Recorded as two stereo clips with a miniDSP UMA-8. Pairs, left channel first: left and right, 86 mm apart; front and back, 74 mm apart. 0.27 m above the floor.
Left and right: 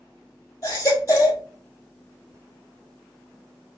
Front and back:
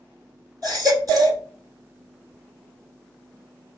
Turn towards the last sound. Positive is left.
turn(degrees=140)